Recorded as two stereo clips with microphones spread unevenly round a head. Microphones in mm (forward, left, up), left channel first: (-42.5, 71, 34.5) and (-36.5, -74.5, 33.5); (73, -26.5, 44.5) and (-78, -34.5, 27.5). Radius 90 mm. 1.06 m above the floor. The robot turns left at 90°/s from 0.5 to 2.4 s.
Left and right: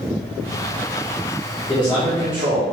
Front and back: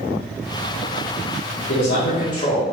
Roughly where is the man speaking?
Ahead left.